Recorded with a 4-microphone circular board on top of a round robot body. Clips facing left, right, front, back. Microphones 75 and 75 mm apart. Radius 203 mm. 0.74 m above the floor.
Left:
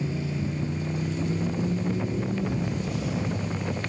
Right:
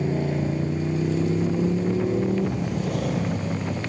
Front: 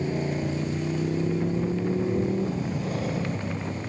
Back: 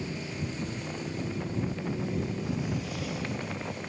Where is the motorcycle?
50° right; by 3.9 s 55° right.